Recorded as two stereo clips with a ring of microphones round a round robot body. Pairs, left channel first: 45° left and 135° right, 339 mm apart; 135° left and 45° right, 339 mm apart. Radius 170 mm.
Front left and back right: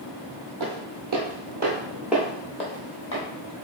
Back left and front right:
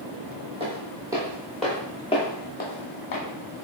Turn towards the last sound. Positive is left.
turn(degrees=90)